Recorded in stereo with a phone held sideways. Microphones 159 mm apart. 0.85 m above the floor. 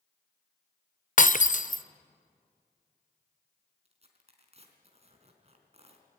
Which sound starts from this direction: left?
Breaking glass, at 1.2 s.